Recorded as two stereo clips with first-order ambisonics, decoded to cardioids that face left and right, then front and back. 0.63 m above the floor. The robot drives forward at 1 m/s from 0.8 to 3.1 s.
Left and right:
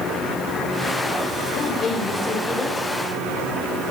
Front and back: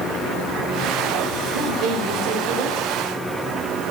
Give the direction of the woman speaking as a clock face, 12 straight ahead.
7 o'clock.